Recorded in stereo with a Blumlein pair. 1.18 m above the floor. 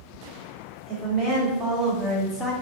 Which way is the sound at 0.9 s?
35° right.